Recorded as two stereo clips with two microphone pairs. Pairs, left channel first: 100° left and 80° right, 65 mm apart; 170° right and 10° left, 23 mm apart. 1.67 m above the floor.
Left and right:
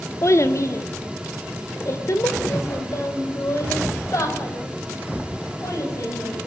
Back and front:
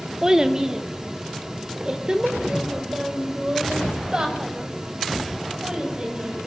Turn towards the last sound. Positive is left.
turn(degrees=65)